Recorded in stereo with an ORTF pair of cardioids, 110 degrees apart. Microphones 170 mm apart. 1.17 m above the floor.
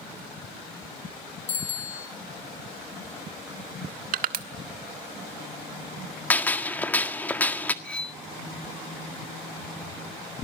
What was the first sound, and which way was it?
A bicycle bell, 40° left.